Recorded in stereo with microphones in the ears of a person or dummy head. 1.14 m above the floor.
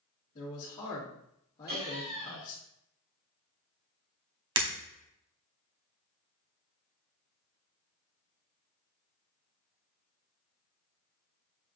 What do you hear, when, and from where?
0.3 s a man speaking: 30° left (ahead or behind), 2 m
1.7 s laughter: 50° right (ahead or behind), 1.6 m
4.6 s breaking glass: 20° right (ahead or behind), 0.8 m